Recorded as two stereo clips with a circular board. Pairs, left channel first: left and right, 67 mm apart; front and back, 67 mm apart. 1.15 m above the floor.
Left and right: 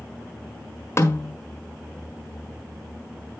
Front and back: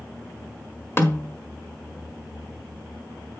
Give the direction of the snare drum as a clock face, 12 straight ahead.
10 o'clock.